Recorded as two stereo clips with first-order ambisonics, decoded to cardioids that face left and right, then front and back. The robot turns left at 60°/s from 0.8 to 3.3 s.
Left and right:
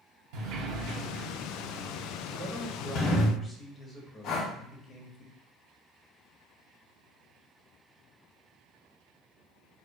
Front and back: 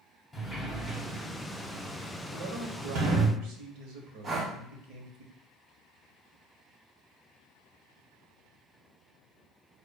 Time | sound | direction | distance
0.3 | a sliding door | 90° right | 0.7 m
2.3 | a man speaking | 140° right | 0.9 m
4.2 | breathing | 110° left | 0.6 m